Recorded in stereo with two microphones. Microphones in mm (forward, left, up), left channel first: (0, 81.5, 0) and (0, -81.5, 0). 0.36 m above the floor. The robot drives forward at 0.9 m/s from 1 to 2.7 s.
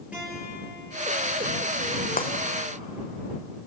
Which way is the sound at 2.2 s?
60° left (ahead or behind).